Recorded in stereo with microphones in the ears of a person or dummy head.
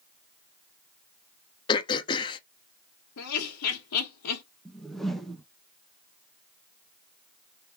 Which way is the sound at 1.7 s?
25° left (ahead or behind).